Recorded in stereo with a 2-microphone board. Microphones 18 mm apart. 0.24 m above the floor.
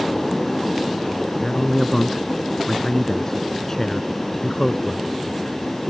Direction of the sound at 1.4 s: 25° left (ahead or behind).